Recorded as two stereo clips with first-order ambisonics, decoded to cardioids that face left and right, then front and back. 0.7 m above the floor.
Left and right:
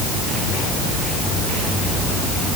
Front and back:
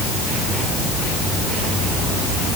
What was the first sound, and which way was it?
Only background noise.